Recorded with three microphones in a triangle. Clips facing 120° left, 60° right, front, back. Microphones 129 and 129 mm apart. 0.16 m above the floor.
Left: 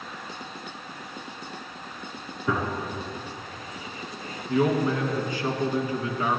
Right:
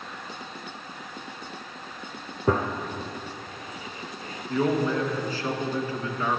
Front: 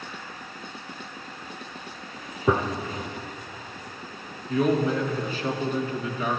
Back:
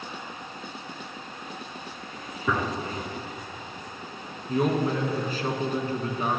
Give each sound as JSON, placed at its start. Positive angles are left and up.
{"t": 2.5, "sound": "a gunshot", "azimuth_deg": -50, "distance_m": 0.9}
{"t": 4.5, "sound": "a man speaking", "azimuth_deg": 180, "distance_m": 1.6}